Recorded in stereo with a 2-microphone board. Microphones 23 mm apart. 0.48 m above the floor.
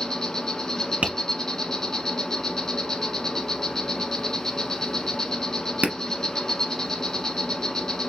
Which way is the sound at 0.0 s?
20° left (ahead or behind).